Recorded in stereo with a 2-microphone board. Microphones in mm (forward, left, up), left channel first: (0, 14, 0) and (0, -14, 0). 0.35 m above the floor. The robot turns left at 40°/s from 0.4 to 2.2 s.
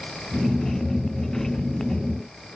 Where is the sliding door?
I don't hear a sliding door.